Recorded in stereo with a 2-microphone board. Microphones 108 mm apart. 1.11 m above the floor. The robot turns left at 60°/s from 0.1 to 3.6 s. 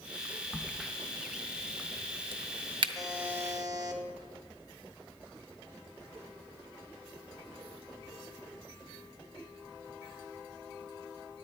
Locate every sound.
0.5 s a crack: 15° left (ahead or behind), 0.6 m; by 2.9 s 45° right (ahead or behind), 0.6 m
3.0 s a buzzer: 5° left, 1.2 m; by 4.0 s 35° right, 1.2 m